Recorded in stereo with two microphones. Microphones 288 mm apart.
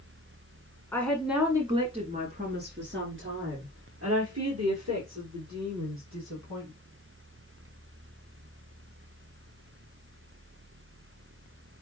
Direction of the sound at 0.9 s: 10° left (ahead or behind).